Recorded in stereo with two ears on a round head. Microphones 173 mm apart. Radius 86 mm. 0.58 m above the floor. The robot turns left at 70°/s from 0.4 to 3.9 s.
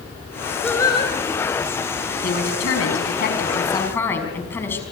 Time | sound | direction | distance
0.6 | singing | 175° left | 3.5 m
2.2 | a woman speaking | 130° left | 5.5 m